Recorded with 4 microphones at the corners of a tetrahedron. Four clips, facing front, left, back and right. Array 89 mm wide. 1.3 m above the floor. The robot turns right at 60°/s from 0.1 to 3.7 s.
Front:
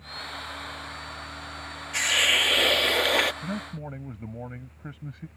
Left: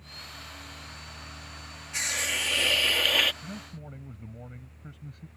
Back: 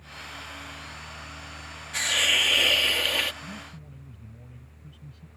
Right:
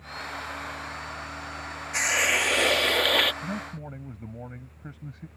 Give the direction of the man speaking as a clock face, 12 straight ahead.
1 o'clock.